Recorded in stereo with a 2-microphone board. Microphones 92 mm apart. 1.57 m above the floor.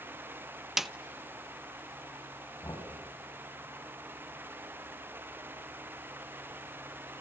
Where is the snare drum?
5° right (ahead or behind), 0.8 m.